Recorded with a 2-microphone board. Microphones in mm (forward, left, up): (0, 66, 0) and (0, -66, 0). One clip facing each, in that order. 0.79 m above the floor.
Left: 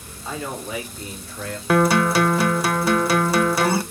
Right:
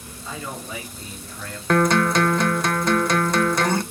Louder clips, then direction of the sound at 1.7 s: Left 1 dB; 5° left (ahead or behind).